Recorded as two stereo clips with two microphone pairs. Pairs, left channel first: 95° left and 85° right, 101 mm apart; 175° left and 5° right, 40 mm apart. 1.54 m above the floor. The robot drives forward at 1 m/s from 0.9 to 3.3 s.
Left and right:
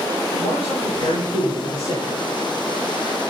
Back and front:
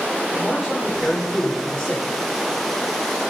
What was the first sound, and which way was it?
A man speaking, 95° left.